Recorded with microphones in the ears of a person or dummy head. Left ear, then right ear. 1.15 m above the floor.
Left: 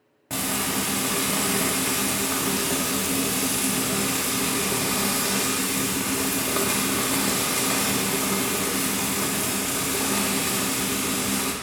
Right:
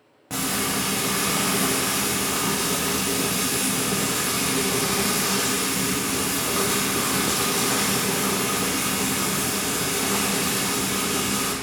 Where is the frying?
10° left (ahead or behind), 0.5 m.